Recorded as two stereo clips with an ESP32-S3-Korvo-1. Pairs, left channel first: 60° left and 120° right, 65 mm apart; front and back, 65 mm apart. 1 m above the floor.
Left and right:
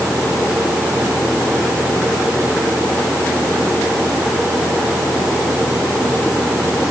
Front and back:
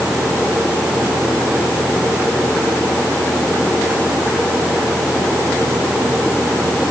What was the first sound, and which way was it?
Only background noise.